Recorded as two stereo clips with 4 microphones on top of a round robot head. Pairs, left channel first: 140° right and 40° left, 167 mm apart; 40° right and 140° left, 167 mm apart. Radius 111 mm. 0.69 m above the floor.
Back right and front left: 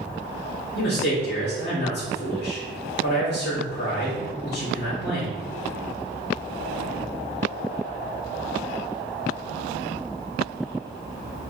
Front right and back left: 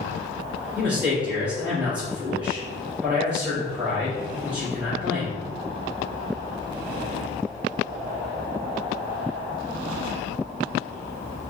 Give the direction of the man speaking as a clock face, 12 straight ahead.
5 o'clock.